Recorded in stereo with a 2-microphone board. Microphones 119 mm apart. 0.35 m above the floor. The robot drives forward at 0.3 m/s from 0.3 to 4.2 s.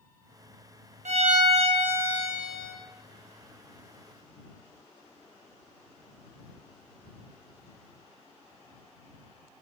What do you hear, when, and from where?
1.1 s a violin: 70° right (ahead or behind), 0.5 m; by 2.7 s 35° right (ahead or behind), 0.8 m